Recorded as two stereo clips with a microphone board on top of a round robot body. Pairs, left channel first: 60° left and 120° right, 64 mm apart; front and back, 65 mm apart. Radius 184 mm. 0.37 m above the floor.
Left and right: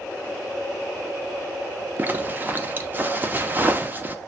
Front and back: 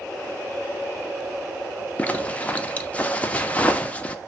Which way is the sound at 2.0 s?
65° right.